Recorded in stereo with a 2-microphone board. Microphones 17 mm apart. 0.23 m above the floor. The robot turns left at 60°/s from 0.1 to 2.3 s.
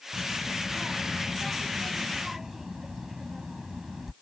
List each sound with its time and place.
0.1 s a child speaking: 40° left (ahead or behind); by 4.1 s 15° right (ahead or behind)